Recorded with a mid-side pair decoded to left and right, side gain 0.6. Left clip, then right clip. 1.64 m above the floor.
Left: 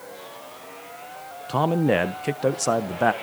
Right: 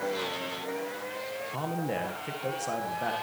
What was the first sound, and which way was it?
A man speaking, 60° left.